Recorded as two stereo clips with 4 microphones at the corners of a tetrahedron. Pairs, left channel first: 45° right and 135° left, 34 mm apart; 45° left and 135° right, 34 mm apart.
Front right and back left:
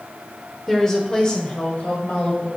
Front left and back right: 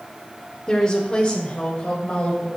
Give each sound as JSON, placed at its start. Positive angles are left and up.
{"t": 0.7, "sound": "a woman speaking", "azimuth_deg": 15, "distance_m": 1.1}